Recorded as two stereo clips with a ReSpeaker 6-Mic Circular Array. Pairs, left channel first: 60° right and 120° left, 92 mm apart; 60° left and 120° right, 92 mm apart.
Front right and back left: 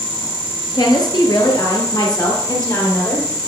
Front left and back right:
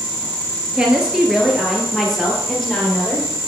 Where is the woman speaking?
45° right, 1.9 m; by 3.3 s 20° right, 3 m.